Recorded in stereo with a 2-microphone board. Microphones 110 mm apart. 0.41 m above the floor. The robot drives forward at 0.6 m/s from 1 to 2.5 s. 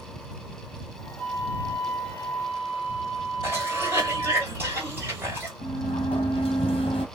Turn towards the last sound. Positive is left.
turn(degrees=60)  # may be behind; listen again after turning